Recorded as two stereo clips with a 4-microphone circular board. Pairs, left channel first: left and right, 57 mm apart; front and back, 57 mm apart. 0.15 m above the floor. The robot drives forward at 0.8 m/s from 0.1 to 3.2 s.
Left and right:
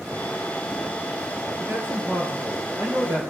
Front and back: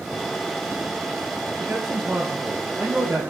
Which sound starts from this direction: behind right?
A man speaking, at 1.6 s.